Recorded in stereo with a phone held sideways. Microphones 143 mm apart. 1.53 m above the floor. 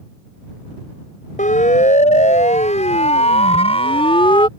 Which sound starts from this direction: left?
A siren, at 1.4 s.